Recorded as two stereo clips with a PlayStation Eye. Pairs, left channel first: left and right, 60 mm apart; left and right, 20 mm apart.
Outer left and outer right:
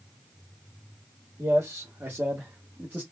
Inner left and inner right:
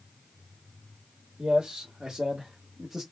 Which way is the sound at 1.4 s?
50° right (ahead or behind).